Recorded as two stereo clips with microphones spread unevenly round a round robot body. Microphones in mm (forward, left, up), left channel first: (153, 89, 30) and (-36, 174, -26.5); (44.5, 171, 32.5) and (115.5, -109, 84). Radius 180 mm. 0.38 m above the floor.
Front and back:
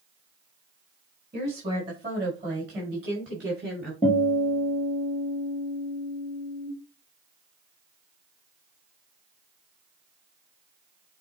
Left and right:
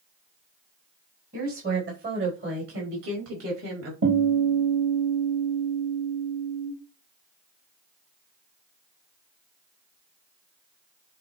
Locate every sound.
1.3 s a woman speaking: 140° right, 4 m; by 3.9 s 120° right, 5.5 m
4.0 s a guitar: 100° right, 5.5 m